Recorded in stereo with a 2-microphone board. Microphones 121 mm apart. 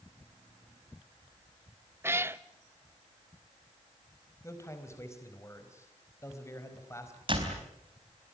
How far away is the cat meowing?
About 0.6 m.